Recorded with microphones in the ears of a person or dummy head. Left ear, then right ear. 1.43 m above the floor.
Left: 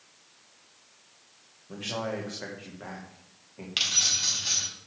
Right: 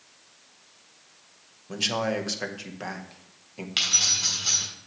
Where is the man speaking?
70° right (ahead or behind), 1.7 m.